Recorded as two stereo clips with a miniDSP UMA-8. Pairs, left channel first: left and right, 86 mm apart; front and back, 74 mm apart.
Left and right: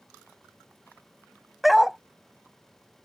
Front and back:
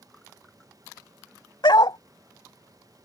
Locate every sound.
1.6 s a dog barking: straight ahead